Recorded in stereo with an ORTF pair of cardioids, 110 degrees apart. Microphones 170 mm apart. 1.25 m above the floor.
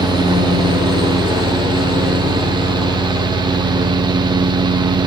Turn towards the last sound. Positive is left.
turn(degrees=-25)